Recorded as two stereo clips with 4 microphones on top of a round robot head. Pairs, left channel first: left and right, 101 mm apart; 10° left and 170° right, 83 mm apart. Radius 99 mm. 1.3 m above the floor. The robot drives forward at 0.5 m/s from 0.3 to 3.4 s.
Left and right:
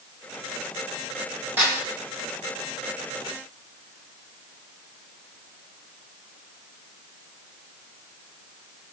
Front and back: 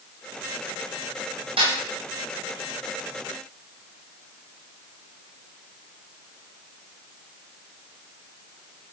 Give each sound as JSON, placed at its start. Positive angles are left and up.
{"t": 1.6, "sound": "a snare drum", "azimuth_deg": -165, "distance_m": 9.5}